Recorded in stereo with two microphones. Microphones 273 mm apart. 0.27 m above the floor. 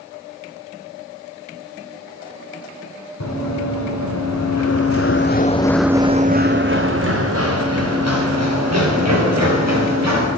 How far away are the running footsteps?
About 1.9 m.